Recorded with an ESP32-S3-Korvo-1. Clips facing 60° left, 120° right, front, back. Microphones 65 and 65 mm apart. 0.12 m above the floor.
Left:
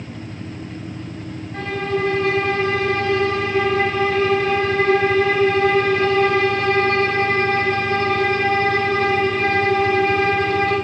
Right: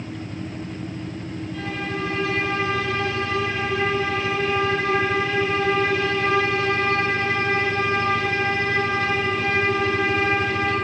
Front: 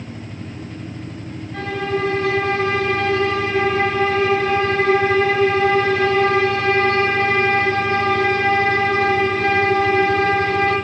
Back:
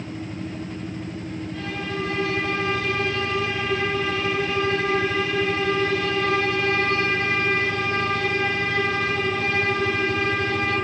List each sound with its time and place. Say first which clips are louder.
1.5 s a violin: left 7 dB, front 9 dB; 25° left, 9.5 m